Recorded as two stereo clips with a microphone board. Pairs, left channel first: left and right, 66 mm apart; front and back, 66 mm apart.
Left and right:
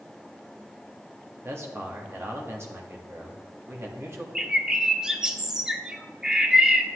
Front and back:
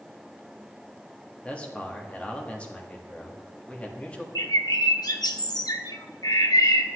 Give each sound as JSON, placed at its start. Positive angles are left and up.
{"t": 1.4, "sound": "a man speaking", "azimuth_deg": -65, "distance_m": 1.4}
{"t": 4.3, "sound": "a bird", "azimuth_deg": -10, "distance_m": 0.8}